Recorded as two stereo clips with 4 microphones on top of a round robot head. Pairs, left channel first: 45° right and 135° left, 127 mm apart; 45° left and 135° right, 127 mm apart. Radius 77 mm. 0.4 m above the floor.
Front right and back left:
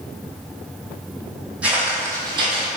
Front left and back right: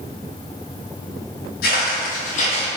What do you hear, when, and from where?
1.6 s footsteps: 55° left, 1.2 m; by 2.7 s 95° left, 1.0 m